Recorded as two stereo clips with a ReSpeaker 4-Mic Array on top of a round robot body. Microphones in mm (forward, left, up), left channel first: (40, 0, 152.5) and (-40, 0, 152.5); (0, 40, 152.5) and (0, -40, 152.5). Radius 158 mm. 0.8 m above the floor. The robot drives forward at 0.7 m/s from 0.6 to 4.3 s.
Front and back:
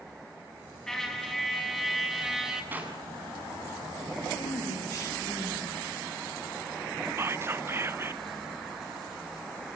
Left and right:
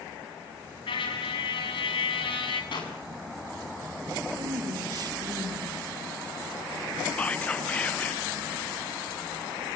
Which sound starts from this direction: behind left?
Whispering, at 7.2 s.